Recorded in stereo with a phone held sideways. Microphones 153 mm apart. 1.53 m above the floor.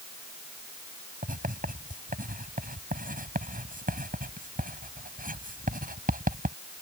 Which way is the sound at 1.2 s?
65° right (ahead or behind).